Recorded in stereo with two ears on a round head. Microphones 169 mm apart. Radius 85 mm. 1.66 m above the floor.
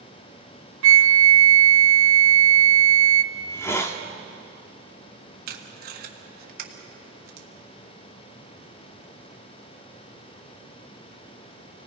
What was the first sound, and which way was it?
A flute, 75° right (ahead or behind).